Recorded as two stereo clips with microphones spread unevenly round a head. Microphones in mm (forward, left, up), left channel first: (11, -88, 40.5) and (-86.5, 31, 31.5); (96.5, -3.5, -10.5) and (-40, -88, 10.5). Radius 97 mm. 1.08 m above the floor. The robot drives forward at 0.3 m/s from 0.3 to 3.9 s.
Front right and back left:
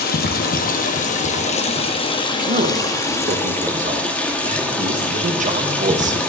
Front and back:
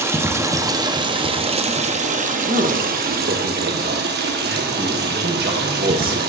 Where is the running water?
75° right, 1.0 m; by 6.3 s 130° right, 1.3 m.